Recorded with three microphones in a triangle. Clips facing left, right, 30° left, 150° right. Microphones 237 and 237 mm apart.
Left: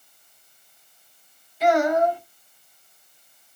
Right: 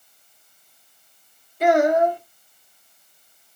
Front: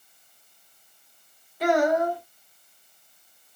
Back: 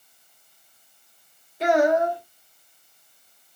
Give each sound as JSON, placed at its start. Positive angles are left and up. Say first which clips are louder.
{"t": 1.6, "sound": "a child speaking", "louder": "right 2 dB, back 2 dB", "azimuth_deg": -90, "distance_m": 1.4}